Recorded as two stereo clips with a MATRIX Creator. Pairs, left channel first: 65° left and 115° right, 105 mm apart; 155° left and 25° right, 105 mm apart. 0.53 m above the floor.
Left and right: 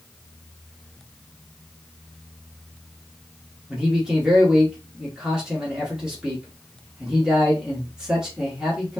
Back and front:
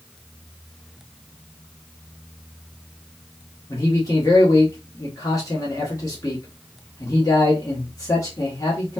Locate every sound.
3.7 s a man speaking: 170° left, 1.2 m